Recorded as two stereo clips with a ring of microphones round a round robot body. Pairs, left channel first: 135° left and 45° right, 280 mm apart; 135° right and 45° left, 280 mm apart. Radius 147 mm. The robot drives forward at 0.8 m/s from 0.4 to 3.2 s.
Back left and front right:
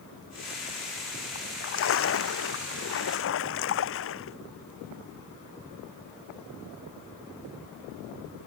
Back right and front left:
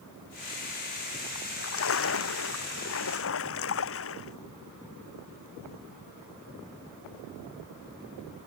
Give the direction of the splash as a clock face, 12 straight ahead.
6 o'clock.